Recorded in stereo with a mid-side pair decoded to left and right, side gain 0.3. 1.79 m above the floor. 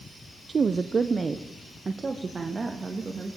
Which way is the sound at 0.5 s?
50° right.